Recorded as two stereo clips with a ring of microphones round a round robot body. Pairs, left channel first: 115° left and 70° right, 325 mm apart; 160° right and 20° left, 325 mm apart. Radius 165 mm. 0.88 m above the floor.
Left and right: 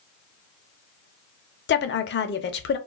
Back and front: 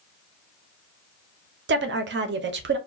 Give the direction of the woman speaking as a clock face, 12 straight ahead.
10 o'clock.